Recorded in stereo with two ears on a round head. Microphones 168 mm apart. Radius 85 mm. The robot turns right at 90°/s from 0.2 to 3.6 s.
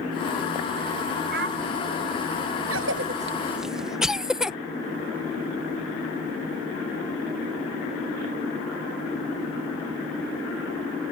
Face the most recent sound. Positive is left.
turn(degrees=-5)  # may be behind; listen again after turning